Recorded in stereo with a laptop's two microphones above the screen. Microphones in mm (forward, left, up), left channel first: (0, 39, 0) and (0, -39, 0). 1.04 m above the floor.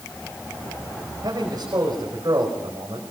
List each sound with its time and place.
1.2 s a man speaking: 60° right (ahead or behind), 5.5 m